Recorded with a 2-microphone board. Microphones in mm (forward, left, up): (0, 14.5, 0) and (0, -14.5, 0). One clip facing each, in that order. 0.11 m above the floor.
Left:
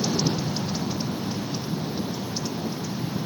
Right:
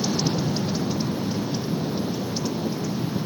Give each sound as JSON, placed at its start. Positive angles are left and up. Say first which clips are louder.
{"t": 0.0, "sound": "an aircraft", "louder": "right 1 dB", "side_deg": -25}